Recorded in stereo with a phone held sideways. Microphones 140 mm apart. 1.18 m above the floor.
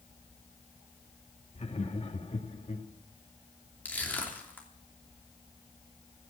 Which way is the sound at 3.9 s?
10° left (ahead or behind).